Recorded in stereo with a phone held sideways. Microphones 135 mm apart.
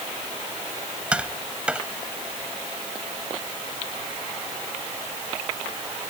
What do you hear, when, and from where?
1.1 s tapping: 10° right (ahead or behind)